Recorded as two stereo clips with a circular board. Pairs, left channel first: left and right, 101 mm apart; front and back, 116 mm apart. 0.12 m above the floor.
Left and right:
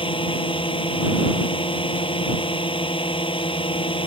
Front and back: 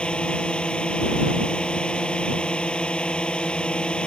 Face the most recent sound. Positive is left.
turn(degrees=80)